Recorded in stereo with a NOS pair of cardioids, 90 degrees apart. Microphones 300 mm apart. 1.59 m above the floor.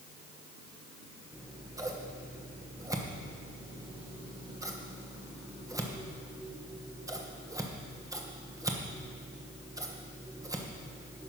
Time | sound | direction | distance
1.3 | scissors | 10° right | 1.3 m